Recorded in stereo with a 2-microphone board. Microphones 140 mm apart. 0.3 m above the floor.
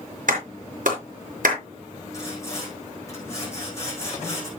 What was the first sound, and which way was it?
A clap, 75° right (ahead or behind).